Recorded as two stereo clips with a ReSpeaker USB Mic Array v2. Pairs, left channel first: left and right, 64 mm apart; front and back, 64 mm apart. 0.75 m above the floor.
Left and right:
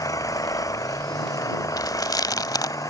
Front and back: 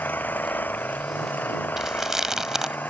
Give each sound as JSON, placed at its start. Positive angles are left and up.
{"t": 0.0, "sound": "an engine running", "azimuth_deg": 60}
{"t": 1.8, "sound": "chewing", "azimuth_deg": 95}